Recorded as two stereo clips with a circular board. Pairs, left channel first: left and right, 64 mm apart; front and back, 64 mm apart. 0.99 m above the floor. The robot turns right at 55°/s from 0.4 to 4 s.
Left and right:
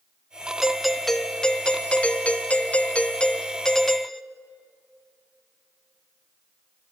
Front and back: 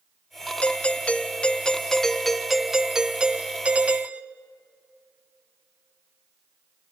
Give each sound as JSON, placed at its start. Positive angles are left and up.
{"t": 0.6, "sound": "a doorbell", "azimuth_deg": -15, "distance_m": 0.6}